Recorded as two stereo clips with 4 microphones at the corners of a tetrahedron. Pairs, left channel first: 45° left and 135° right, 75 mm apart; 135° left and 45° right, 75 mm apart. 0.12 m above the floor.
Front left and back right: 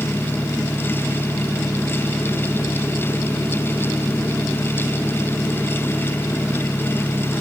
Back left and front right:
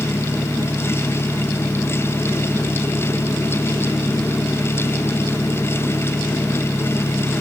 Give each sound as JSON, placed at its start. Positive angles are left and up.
{"t": 0.0, "sound": "an engine running", "azimuth_deg": 95}